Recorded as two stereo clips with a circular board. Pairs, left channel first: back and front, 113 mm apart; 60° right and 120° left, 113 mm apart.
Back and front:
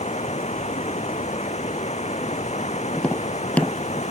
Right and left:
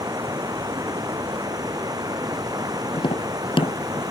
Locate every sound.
0.0 s running water: 175° left
2.9 s tapping: 100° right